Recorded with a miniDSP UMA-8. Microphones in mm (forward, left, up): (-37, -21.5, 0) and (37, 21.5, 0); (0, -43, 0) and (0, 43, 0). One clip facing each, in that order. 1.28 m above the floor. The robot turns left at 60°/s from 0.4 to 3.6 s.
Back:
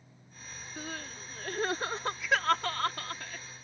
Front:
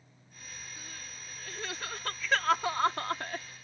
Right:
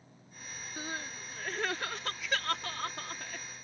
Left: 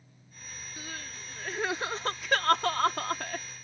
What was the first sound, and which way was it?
Crying, 140° right.